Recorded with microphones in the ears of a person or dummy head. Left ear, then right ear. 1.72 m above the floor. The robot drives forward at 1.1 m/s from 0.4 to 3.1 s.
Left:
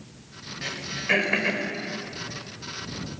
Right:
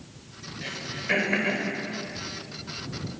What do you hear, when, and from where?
0.6 s throat clearing: 15° left (ahead or behind), 5.5 m; by 1.7 s 20° left (ahead or behind), 4.5 m